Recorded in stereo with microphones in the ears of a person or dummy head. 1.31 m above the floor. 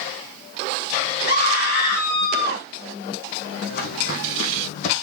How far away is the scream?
About 4.5 m.